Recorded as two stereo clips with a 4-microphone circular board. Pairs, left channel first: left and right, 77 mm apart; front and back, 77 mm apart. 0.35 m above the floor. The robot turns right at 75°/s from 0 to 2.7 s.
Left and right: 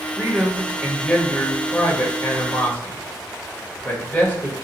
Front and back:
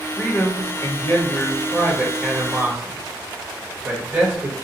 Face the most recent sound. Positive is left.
turn(degrees=140)